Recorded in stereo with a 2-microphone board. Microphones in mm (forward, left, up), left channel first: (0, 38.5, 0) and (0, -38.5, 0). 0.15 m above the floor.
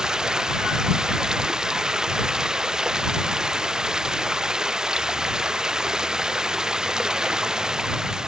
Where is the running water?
10° right (ahead or behind).